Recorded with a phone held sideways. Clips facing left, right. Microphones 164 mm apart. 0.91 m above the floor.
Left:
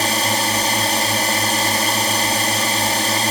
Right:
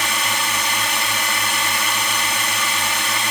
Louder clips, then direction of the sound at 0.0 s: Left 5 dB; 40° left (ahead or behind).